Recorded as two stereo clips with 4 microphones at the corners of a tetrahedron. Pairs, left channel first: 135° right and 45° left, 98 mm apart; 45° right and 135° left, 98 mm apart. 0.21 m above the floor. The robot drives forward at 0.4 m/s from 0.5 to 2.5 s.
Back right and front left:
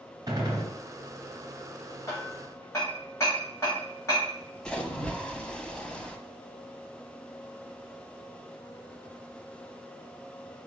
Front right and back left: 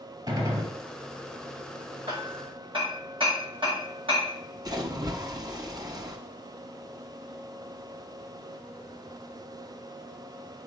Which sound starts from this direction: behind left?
A splash, at 4.7 s.